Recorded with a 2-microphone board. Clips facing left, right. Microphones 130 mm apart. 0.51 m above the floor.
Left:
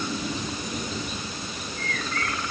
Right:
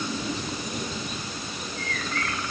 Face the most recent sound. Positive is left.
No sound to turn to.